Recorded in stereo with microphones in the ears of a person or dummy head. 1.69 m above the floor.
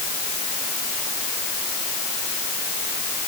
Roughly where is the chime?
No chime in this recording.